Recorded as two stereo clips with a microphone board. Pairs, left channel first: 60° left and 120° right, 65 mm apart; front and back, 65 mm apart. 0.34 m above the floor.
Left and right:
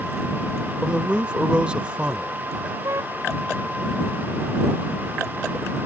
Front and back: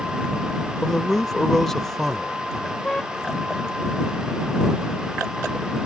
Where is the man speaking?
75° right.